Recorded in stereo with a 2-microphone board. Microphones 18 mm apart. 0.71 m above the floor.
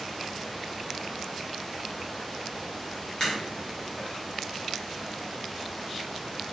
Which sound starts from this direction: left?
A crack, at 3.2 s.